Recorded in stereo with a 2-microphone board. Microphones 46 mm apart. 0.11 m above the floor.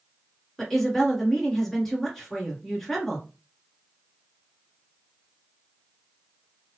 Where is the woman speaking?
10° left (ahead or behind), 1.7 m.